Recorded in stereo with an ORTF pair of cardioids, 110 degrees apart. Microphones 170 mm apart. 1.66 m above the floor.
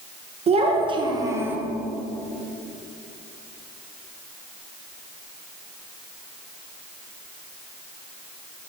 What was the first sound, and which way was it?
A child speaking, 40° right.